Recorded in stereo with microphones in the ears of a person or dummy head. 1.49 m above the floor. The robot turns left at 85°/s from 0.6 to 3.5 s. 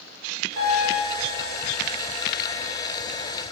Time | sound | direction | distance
0.6 | a piano | 115° right | 1.4 m